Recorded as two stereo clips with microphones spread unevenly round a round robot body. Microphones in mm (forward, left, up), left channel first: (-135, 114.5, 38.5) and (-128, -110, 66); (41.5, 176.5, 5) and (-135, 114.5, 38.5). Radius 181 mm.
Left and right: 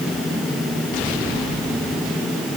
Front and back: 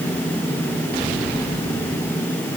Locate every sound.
Only background noise.